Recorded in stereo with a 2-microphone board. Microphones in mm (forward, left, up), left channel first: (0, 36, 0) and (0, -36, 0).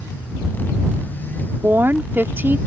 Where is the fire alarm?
I don't hear a fire alarm.